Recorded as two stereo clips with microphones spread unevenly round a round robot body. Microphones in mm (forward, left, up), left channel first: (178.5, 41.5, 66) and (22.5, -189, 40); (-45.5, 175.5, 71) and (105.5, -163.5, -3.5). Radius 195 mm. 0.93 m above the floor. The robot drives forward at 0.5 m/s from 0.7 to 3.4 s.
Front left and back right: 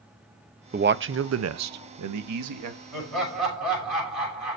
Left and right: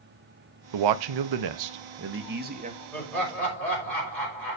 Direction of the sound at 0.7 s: 65° right.